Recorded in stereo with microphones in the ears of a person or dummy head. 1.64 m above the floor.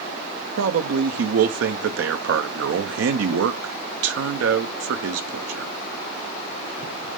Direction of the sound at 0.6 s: 80° right.